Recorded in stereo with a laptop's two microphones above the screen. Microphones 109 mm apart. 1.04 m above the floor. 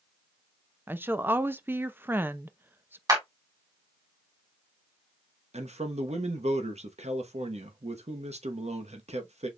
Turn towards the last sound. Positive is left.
turn(degrees=-80)